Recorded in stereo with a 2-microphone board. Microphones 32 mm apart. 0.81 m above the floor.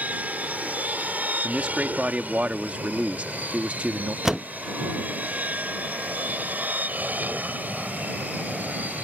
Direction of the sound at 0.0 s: 55° right (ahead or behind).